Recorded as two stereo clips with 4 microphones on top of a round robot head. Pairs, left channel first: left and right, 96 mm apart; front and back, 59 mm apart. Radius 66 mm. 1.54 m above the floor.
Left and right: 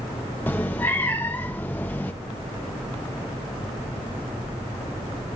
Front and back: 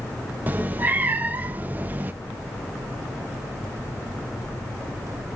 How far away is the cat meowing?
About 0.8 m.